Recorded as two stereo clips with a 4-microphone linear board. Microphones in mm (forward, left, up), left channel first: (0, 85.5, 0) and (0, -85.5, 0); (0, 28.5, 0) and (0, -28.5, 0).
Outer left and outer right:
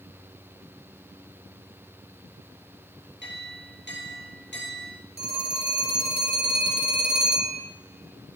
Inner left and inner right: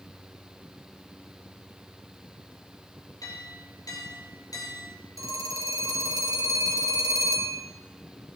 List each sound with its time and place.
3.2 s a clink: 80° left, 5.5 m
5.2 s a phone ringing: 70° right (ahead or behind), 3.5 m